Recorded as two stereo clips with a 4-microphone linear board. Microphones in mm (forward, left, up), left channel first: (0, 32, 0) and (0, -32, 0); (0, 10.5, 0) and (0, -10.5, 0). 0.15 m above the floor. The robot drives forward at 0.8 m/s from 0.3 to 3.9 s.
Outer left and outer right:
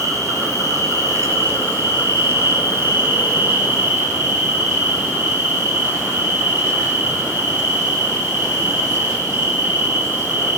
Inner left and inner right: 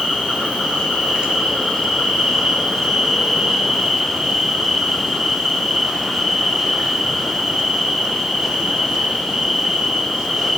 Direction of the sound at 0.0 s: 60° right (ahead or behind).